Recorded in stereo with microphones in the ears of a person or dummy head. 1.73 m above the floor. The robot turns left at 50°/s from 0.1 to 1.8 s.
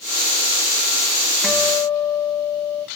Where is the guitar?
Centre (ahead or behind), 1.8 m; by 2.9 s 20° left (ahead or behind), 1.8 m.